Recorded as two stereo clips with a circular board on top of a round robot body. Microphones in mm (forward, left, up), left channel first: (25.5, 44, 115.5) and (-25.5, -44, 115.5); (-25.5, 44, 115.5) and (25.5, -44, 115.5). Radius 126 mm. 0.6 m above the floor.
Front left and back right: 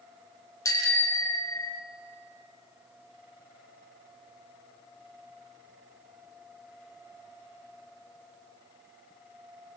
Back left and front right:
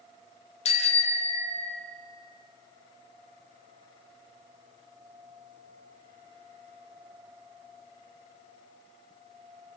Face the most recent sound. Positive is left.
turn(degrees=115)